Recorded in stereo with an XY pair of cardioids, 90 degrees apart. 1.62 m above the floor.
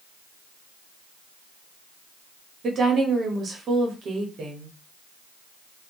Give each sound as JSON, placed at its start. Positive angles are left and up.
{"t": 2.6, "sound": "a woman speaking", "azimuth_deg": -60, "distance_m": 1.0}